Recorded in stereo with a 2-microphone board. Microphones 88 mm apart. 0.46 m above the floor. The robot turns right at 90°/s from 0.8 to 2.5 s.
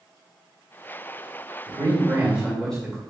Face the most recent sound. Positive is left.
turn(degrees=5)